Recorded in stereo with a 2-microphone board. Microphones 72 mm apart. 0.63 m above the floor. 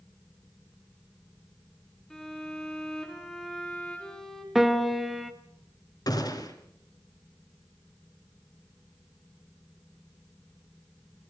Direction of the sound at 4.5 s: Centre (ahead or behind).